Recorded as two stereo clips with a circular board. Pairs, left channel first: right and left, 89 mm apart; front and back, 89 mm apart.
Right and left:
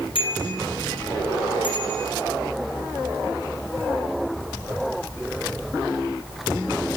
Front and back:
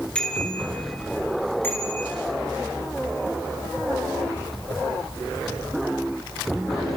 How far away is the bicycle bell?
About 6.5 m.